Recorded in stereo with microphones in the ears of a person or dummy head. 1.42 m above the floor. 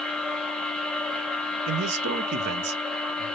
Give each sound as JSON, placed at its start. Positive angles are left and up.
{"t": 0.0, "sound": "a machine running", "side_deg": 5, "distance_m": 0.8}
{"t": 1.7, "sound": "a man speaking", "side_deg": -60, "distance_m": 0.9}